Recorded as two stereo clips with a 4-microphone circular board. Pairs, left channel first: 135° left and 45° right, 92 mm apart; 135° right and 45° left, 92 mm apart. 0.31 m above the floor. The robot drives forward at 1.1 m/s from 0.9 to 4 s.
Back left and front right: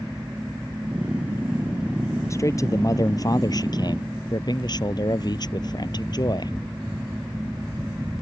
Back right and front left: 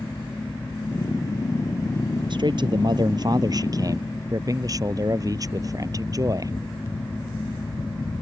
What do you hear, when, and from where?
2.3 s a man speaking: 80° left; by 6.5 s 95° left